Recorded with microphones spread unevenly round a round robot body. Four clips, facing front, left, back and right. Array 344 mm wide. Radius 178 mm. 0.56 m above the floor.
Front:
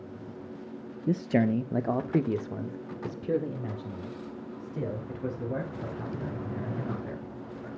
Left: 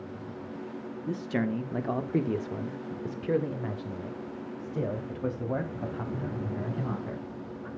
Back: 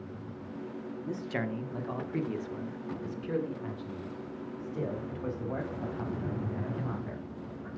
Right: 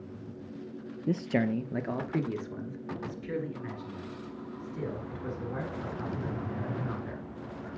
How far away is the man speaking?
About 1.0 m.